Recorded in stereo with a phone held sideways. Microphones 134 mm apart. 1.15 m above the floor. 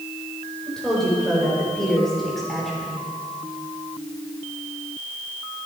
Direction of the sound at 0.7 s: 5° left (ahead or behind).